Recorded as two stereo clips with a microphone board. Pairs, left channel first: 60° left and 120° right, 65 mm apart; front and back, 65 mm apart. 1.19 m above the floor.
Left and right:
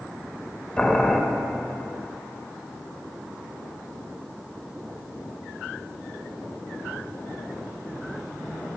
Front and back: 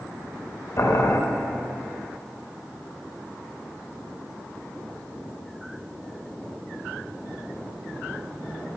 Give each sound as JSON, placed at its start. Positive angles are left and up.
{"t": 0.8, "sound": "boiling", "azimuth_deg": -10, "distance_m": 0.6}